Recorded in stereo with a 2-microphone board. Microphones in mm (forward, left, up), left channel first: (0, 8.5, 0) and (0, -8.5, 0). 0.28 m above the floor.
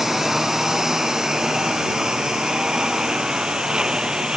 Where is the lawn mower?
20° right (ahead or behind); by 4.4 s 55° right (ahead or behind).